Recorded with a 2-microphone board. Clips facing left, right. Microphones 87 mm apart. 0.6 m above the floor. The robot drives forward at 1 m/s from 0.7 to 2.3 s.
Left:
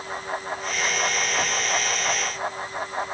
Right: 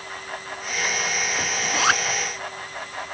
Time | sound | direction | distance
1.6 | a zipper | 85° right | ?